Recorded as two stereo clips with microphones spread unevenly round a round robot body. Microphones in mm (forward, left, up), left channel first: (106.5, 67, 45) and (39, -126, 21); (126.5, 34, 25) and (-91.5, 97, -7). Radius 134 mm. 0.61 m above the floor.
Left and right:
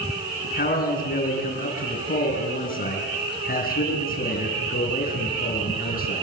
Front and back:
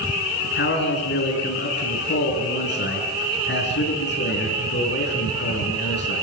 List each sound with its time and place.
0.4 s a man speaking: 25° left, 7.5 m